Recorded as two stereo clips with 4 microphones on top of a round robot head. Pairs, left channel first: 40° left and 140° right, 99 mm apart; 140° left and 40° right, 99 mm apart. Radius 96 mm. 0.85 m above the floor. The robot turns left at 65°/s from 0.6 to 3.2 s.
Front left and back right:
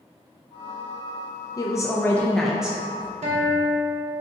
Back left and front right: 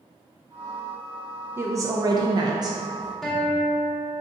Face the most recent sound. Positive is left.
turn(degrees=-135)